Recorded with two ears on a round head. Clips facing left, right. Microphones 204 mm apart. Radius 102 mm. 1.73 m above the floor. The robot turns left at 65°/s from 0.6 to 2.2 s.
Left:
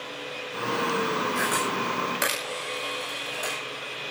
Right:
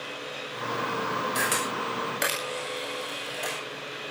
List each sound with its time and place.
1.4 s a camera shutter: 55° right (ahead or behind), 8 m; by 3.6 s centre (ahead or behind), 8 m